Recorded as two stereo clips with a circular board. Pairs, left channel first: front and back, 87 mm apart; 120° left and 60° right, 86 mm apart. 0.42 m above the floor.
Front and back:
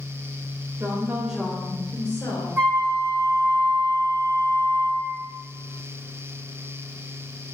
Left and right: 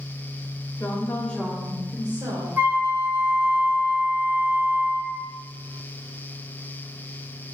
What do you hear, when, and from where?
0.8 s a woman speaking: 145° left, 0.9 m; by 2.5 s 30° right, 1.2 m
2.6 s a flute: 125° right, 1.0 m